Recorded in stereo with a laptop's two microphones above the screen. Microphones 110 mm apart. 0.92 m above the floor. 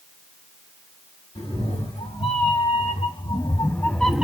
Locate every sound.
1.4 s a cat meowing: 85° left, 1.7 m; by 4.3 s 10° right (ahead or behind), 0.6 m